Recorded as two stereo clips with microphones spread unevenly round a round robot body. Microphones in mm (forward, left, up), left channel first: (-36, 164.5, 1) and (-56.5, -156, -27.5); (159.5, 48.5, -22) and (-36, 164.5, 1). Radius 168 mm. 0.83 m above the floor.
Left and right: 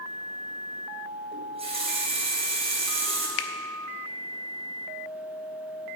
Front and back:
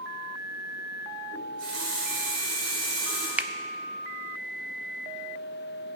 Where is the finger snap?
65° left, 0.7 m.